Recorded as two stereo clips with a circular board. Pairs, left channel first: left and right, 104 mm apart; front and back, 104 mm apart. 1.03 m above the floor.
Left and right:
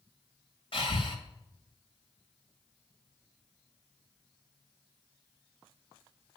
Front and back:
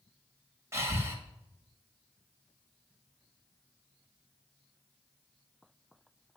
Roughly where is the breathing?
Behind left.